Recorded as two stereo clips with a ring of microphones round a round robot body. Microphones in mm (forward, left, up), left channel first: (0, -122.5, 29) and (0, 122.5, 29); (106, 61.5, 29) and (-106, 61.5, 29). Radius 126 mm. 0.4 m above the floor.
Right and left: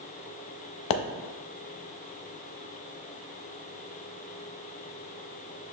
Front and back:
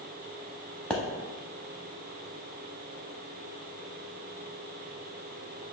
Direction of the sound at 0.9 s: 85° right.